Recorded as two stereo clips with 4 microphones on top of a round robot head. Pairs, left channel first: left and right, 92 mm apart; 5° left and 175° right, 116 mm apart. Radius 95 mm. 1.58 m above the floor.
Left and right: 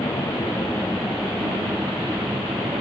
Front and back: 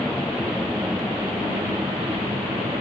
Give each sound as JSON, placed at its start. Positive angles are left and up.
{"t": 0.0, "sound": "a helicopter", "azimuth_deg": 90}